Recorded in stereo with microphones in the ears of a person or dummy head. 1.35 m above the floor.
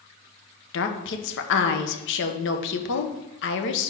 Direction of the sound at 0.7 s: 65° left (ahead or behind).